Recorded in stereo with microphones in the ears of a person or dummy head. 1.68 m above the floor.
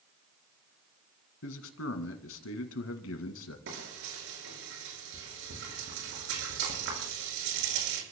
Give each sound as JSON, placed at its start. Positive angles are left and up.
{"t": 1.4, "sound": "a man speaking", "side_deg": 90, "distance_m": 2.0}
{"t": 3.7, "sound": "frying", "side_deg": -75, "distance_m": 6.0}